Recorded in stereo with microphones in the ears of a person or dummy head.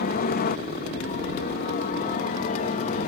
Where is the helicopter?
45° left (ahead or behind); by 3.1 s 40° left (ahead or behind).